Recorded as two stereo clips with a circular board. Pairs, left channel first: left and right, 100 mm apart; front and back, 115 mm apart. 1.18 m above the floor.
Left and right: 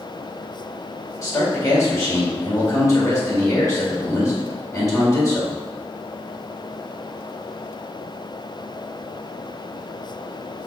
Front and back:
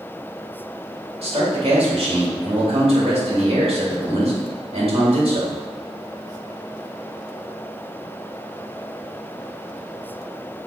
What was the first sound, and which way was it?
A man speaking, 150° left.